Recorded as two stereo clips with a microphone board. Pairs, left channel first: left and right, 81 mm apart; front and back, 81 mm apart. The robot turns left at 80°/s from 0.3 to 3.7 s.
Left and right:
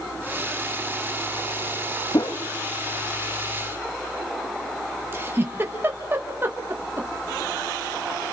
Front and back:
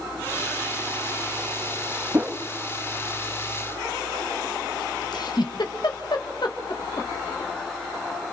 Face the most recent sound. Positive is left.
turn(degrees=-30)